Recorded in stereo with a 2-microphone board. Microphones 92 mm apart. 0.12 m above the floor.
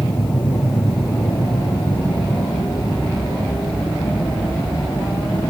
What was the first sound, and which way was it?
An aircraft, 55° left (ahead or behind).